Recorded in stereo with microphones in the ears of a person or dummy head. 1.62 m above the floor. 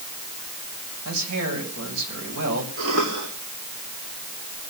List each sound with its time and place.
1.1 s a man speaking: 80° right, 7.5 m
2.8 s a cough: 80° right, 5 m